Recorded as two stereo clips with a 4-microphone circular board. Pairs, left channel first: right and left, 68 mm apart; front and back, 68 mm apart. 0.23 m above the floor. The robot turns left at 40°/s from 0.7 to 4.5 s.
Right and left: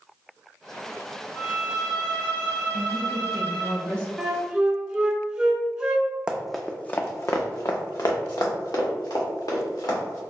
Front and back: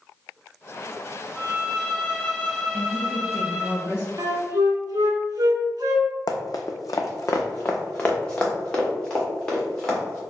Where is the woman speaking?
15° left, 1.7 m; by 4.1 s 40° right, 1.7 m.